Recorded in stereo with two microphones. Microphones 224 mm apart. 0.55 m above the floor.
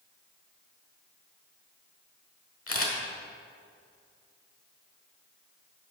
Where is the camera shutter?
80° left, 1.0 m.